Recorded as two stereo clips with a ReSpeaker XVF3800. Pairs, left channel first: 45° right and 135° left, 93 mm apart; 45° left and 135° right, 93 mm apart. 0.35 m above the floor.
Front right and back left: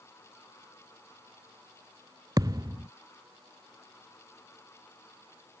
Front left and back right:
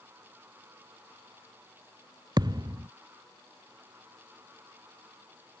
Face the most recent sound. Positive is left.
turn(degrees=180)